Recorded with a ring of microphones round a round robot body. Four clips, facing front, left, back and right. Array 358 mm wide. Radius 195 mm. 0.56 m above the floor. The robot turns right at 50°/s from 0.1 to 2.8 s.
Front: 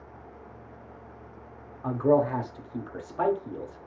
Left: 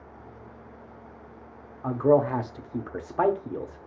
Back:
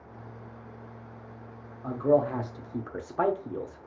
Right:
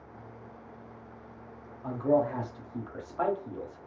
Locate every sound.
1.8 s a man speaking: 60° left, 1.0 m; by 3.9 s 105° left, 1.0 m